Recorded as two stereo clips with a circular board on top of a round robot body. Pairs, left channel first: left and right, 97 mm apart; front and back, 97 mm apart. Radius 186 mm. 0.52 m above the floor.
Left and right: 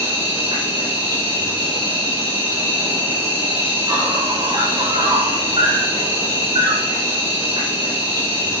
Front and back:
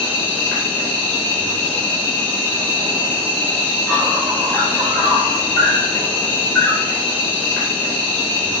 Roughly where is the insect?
Right.